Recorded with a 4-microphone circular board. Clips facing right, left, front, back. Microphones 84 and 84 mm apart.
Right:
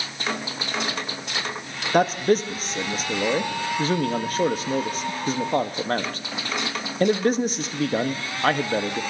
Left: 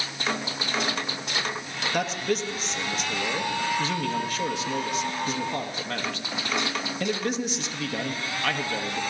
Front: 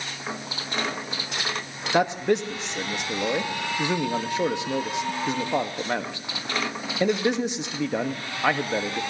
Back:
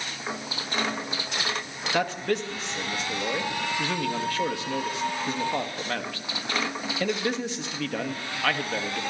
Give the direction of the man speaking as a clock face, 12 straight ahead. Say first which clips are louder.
Right 8 dB, front 5 dB; 2 o'clock.